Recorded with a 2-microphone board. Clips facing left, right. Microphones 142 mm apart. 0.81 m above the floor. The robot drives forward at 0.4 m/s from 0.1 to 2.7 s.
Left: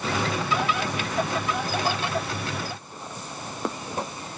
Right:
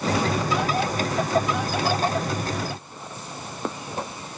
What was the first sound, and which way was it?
Only background noise.